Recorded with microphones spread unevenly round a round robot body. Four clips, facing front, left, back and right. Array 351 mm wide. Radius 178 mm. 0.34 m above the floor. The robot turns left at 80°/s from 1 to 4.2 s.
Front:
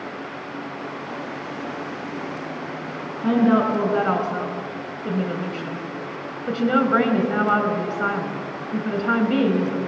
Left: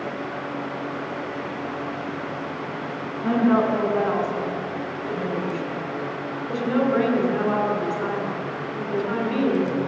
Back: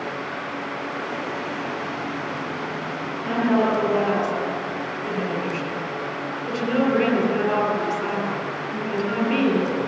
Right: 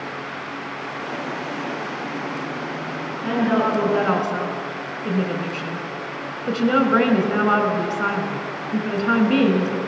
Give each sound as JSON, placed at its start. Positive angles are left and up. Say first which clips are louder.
{"t": 3.2, "sound": "a woman speaking", "louder": "left 1 dB, front 3 dB", "azimuth_deg": 15, "distance_m": 4.0}